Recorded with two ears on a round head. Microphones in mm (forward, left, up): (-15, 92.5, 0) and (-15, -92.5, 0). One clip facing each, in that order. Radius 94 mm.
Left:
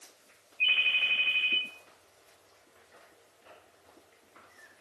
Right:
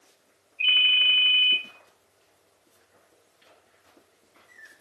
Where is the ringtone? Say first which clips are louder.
Right 4 dB; 55° right (ahead or behind), 1.1 m.